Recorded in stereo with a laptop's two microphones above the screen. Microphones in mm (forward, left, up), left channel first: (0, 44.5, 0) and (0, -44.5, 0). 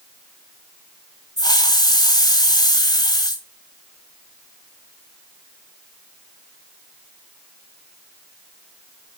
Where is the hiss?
50° left (ahead or behind), 1.6 m.